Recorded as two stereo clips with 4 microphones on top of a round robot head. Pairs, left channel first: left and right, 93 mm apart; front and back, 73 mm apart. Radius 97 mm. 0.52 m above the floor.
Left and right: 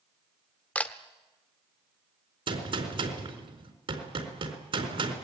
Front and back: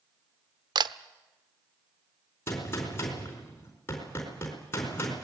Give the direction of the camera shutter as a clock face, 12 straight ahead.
6 o'clock.